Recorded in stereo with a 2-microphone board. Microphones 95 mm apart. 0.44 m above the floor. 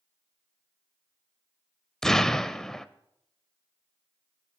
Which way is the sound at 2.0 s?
5° left (ahead or behind).